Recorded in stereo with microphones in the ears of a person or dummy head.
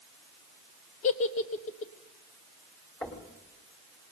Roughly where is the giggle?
Left.